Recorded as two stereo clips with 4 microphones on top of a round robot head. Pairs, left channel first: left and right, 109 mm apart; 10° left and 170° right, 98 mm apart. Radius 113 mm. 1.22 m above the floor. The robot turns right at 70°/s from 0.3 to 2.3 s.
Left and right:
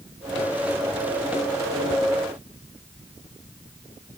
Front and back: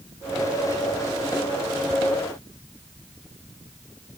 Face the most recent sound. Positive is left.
No sound to turn to.